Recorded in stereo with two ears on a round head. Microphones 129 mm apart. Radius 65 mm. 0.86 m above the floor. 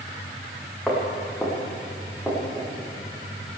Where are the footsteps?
Centre (ahead or behind), 4.5 m; by 2.7 s 5° right (ahead or behind), 5.5 m.